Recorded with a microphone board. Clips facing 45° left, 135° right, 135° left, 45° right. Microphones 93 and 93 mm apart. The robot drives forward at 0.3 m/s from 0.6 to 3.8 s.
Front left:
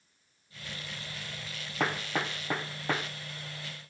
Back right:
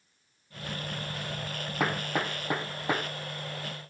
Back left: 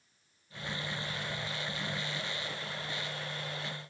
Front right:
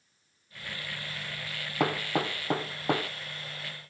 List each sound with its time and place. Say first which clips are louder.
1.8 s hammering: back right 1 dB, front right 10 dB; 50° right; by 3.1 s 55° right